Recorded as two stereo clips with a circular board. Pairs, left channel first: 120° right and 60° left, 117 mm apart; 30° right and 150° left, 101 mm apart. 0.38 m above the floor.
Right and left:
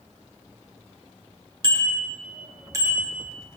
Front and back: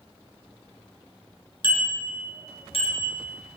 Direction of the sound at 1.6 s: 10° left.